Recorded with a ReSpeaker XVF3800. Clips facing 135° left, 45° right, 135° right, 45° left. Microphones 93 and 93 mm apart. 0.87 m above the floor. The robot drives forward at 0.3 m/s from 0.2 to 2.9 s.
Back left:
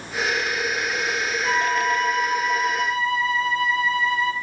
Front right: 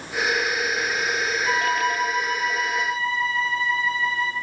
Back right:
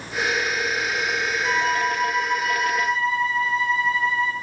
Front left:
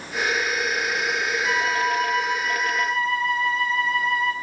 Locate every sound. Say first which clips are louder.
1.4 s a flute: back left 2 dB, back right 1 dB; 155° left, 0.7 m; by 4.3 s 165° left, 1.1 m